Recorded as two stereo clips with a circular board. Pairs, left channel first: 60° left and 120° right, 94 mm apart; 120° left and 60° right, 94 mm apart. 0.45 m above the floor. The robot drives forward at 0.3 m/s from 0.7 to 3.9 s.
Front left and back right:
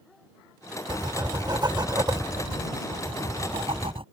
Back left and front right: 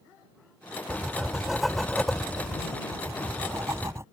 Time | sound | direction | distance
0.9 | writing | 140° right | ?
2.9 | writing | 115° right | ?